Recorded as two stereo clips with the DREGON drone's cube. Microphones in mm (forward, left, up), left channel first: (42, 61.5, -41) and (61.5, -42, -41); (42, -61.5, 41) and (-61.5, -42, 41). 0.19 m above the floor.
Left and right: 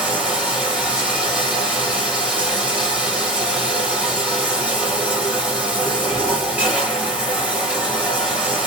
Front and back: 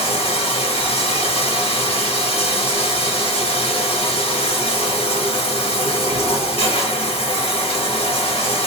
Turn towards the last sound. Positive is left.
turn(degrees=0)